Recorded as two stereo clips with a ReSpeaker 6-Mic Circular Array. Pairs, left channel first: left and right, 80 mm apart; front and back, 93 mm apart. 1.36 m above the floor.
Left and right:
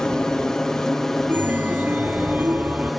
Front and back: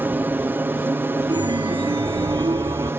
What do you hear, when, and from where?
0.0 s an aircraft: 160° left; by 3.0 s straight behind
1.3 s a chime: 155° right